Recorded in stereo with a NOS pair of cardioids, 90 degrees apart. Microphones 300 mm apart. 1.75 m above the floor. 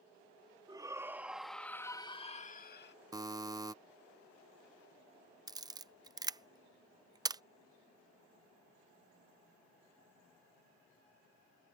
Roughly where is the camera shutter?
Ahead.